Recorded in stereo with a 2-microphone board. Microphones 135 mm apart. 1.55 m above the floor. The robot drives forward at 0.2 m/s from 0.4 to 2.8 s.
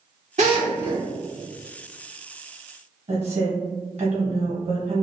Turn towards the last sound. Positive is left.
turn(degrees=-55)  # may be behind; listen again after turning